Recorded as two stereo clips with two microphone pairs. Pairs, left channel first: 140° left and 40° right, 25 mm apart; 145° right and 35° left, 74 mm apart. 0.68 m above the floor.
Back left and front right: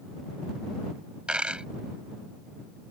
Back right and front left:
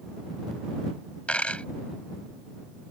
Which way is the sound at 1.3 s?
75° right.